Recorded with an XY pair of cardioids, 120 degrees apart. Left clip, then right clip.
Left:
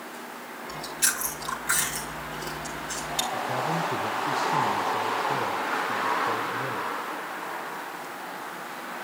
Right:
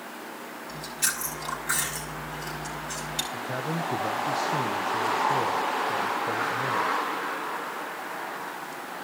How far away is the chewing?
About 4.5 m.